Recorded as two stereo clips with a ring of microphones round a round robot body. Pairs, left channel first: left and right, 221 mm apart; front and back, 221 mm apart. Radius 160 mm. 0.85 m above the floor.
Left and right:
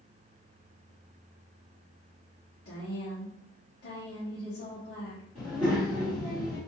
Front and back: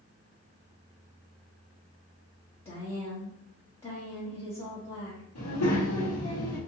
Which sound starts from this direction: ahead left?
A woman speaking, at 2.6 s.